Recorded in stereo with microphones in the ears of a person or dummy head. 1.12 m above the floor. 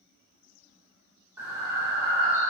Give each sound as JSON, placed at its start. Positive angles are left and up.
{"t": 1.4, "sound": "breathing", "side_deg": -15, "distance_m": 1.5}